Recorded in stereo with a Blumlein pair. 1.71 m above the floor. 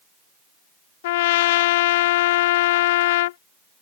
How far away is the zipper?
I don't hear a zipper.